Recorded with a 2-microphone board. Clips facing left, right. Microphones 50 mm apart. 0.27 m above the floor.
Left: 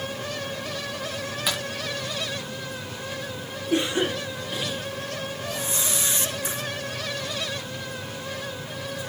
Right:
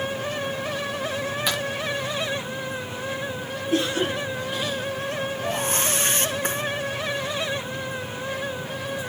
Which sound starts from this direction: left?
A cough, at 3.7 s.